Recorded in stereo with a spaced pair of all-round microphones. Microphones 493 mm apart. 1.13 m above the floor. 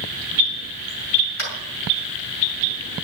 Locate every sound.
1.4 s tapping: 80° left, 6.5 m